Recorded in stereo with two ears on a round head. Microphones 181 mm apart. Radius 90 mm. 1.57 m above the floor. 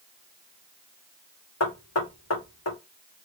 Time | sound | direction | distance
1.6 | knocking | 80° left | 2.0 m